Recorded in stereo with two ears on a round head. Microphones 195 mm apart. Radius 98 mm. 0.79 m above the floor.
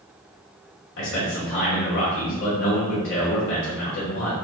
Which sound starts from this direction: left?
A man speaking, at 1.0 s.